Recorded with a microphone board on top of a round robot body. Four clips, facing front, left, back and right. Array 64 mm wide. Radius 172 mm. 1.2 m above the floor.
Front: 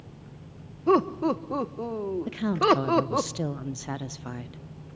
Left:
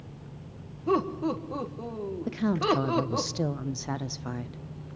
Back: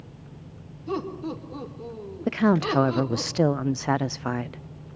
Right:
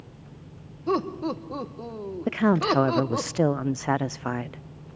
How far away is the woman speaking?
About 0.5 m.